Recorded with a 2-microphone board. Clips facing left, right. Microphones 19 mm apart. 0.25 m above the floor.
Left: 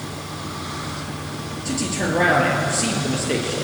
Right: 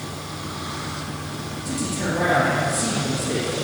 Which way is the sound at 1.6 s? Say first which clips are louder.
Left 3 dB; 50° left (ahead or behind).